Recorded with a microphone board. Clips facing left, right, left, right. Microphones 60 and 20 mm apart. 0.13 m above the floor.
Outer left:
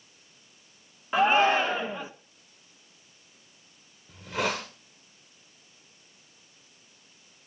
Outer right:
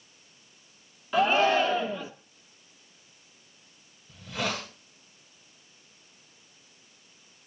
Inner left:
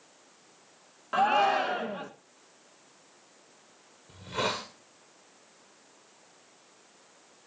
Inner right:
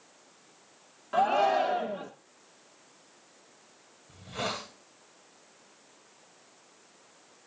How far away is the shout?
About 1.1 m.